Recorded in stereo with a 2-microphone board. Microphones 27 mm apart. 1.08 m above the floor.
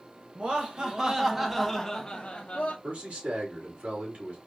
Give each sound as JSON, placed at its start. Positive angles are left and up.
{"t": 0.3, "sound": "laughter", "side_deg": -35, "distance_m": 1.2}
{"t": 2.8, "sound": "a man speaking", "side_deg": -70, "distance_m": 2.0}